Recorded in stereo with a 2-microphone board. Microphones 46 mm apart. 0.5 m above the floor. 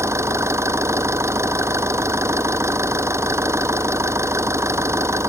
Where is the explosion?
No explosion in this recording.